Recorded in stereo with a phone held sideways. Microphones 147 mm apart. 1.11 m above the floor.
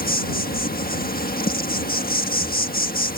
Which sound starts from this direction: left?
An insect, at 0.0 s.